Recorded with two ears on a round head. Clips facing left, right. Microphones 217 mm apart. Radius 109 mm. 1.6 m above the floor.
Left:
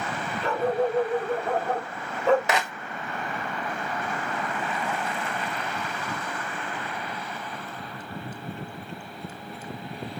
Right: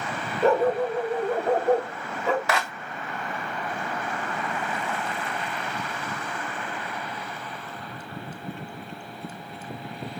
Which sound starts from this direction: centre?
A clap, at 2.5 s.